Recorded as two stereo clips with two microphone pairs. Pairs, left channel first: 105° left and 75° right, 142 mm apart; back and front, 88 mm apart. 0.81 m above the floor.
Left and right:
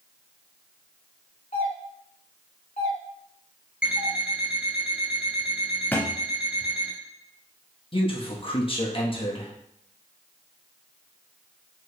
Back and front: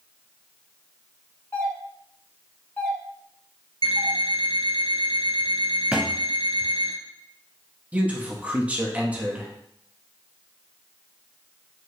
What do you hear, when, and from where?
1.5 s a doorbell: 120° left, 1.6 m
3.8 s an alarm clock: 5° left, 1.5 m
5.9 s a thud: 60° left, 0.6 m
7.9 s a man speaking: 75° left, 1.0 m